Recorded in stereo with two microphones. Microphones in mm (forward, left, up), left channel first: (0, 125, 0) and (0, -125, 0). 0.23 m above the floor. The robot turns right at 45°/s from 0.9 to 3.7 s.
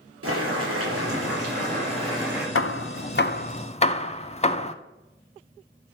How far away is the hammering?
About 0.5 m.